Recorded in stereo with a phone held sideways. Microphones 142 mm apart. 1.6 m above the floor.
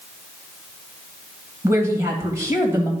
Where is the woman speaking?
20° right (ahead or behind), 2 m.